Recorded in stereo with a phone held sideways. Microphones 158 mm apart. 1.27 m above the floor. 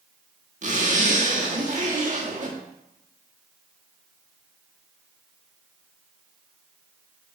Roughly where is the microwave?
No microwave in this recording.